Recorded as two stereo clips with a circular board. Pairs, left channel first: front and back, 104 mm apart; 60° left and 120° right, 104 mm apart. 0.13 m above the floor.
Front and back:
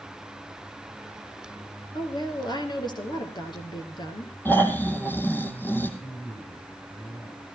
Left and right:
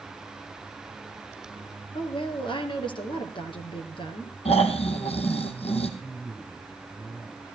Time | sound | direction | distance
1.9 | a woman speaking | 40° left | 3 m
4.5 | snoring | 70° left | 2.0 m
6.0 | a man speaking | 20° right | 9 m